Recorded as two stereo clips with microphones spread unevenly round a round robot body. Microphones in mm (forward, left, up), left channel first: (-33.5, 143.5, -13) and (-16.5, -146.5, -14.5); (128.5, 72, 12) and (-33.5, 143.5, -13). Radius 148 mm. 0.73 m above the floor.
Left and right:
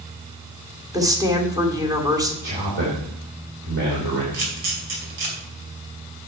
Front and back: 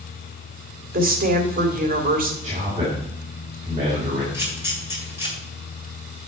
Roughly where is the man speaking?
Behind right.